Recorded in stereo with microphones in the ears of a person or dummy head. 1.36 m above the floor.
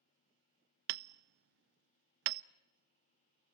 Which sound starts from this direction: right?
Hammering, at 0.9 s.